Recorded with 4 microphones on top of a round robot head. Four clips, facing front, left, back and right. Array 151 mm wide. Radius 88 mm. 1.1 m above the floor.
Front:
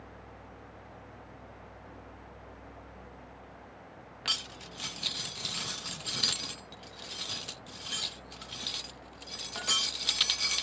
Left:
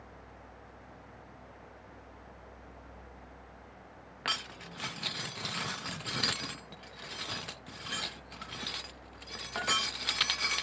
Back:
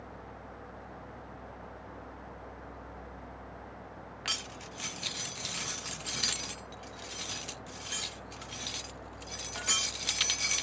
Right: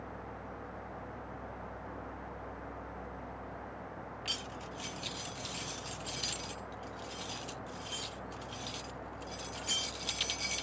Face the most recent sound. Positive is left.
turn(degrees=75)